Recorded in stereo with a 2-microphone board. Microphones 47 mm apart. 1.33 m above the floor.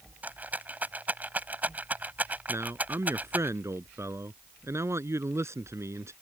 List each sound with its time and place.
0.2 s a rattle: 35° right (ahead or behind)
2.5 s a man speaking: 75° right (ahead or behind)